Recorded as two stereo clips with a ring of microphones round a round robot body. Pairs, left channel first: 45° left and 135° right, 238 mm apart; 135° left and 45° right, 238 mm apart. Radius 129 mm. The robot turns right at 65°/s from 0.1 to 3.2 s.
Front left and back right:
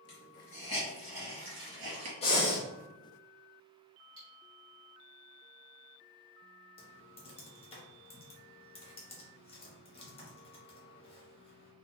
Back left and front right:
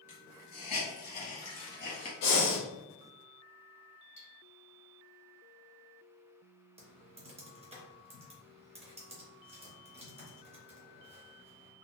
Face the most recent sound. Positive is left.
turn(degrees=0)